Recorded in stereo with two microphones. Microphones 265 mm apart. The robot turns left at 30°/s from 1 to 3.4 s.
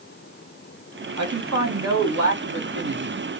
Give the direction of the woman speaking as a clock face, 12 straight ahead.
3 o'clock.